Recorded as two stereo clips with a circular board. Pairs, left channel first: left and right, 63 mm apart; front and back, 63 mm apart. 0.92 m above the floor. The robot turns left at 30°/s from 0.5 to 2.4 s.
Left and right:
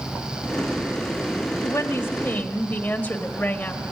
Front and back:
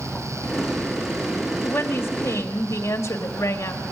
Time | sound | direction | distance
1.6 | a woman speaking | 55° left | 1.8 m